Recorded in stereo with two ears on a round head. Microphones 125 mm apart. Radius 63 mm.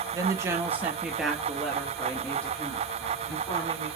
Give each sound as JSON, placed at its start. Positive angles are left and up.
{"t": 0.1, "sound": "a woman speaking", "side_deg": -25, "distance_m": 0.8}